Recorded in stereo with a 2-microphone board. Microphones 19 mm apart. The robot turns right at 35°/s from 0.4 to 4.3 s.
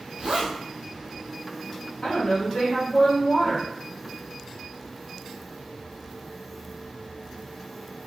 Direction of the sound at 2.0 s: 75° left.